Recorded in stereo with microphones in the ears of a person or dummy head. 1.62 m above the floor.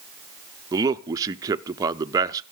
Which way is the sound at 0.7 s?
20° right (ahead or behind).